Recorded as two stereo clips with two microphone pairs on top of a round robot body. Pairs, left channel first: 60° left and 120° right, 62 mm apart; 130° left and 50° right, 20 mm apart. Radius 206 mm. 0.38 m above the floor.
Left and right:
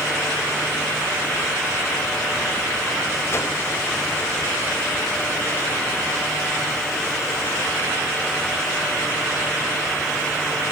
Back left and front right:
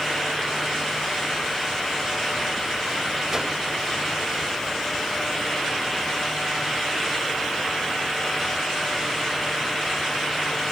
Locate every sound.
3.3 s a whoosh: 15° left, 2.5 m